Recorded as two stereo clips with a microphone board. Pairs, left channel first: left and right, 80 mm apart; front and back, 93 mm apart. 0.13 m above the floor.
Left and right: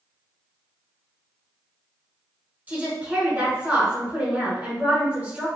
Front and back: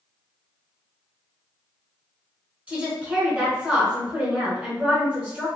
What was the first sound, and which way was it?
A woman speaking, 125° right.